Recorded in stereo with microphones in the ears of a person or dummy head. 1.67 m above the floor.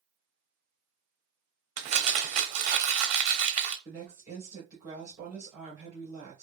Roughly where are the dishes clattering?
No dishes clattering in this recording.